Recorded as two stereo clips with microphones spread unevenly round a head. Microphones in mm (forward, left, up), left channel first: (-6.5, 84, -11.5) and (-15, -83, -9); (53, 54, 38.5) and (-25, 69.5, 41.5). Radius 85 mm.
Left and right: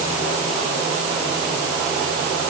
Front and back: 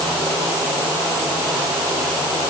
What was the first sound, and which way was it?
Only background noise.